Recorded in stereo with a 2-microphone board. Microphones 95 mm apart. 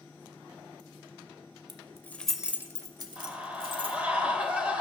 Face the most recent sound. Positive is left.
turn(degrees=-15)  # may be behind; listen again after turning